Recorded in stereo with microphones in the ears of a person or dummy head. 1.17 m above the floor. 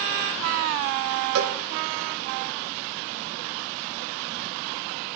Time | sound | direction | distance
1.4 | a cowbell | 80° right | 0.6 m